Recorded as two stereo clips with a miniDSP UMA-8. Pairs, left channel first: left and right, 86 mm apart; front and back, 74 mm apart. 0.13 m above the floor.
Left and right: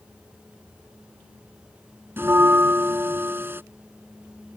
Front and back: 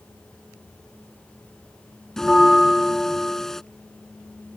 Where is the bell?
80° right.